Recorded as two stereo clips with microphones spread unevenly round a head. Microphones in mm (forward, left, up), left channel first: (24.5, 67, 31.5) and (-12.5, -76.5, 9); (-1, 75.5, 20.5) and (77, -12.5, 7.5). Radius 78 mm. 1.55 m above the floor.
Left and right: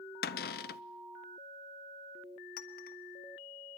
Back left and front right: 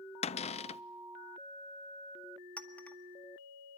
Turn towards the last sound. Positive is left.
turn(degrees=55)